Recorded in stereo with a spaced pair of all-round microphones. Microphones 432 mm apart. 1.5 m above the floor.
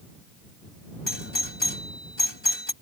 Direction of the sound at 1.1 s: 80° left.